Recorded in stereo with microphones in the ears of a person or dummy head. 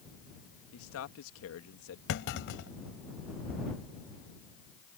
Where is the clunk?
50° left (ahead or behind).